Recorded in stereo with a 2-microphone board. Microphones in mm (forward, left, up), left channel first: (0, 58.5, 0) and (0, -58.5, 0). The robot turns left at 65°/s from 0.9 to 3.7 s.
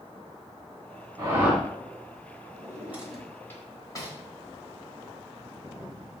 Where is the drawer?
35° right (ahead or behind), 1.4 m; by 4.2 s 30° left (ahead or behind), 1.4 m.